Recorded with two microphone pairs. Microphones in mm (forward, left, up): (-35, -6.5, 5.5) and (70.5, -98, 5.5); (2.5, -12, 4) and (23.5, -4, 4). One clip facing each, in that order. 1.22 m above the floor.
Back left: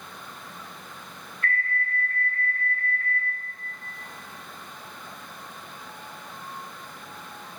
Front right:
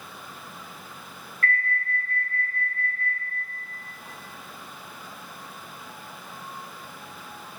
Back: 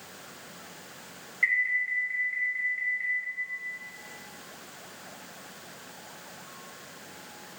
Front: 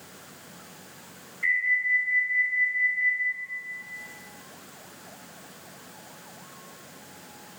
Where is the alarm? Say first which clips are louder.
Front right 1 dB, front 2 dB; 150° right, 1.6 m.